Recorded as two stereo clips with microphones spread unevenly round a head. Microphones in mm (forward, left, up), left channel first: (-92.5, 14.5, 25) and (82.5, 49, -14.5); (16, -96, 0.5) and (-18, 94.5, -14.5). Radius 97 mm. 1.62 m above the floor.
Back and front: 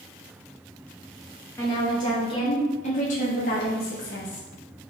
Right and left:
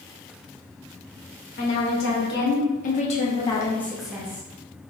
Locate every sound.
1.6 s a woman speaking: 100° right, 1.8 m; by 4.5 s 175° left, 1.1 m